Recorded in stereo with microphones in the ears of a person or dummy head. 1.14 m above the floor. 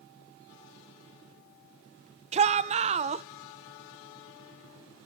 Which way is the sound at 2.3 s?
30° right (ahead or behind).